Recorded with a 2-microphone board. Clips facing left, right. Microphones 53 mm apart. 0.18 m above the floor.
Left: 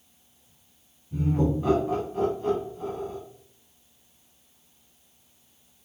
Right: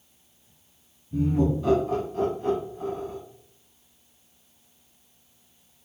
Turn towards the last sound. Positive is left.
turn(degrees=-30)  # may be behind; listen again after turning